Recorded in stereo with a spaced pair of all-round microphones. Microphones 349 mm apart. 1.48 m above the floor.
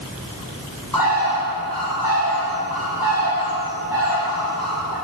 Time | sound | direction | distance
0.9 | a bird | 80° left | 7 m